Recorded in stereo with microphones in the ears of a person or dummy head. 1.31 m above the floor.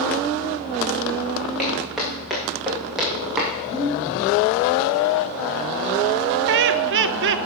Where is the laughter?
60° right (ahead or behind), 0.9 m.